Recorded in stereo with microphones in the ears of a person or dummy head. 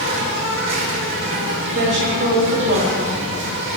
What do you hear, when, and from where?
0.0 s an insect: 65° right (ahead or behind), 2.5 m
1.7 s a woman speaking: 60° right (ahead or behind), 5 m